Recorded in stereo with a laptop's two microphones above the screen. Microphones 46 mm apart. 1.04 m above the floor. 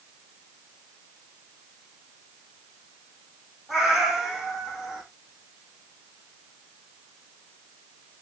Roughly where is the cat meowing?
Centre.